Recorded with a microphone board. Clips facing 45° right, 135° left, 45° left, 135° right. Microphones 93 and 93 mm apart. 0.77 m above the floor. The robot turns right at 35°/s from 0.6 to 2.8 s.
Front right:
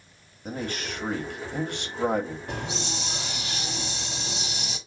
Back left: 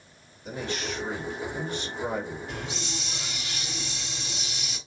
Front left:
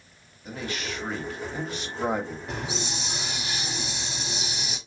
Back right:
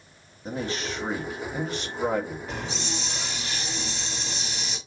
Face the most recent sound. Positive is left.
turn(degrees=-30)